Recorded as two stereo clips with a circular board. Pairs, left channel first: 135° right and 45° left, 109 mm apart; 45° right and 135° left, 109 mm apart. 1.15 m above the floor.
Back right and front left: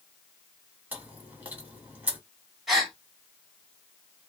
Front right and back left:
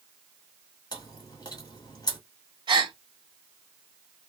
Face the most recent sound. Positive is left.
turn(degrees=135)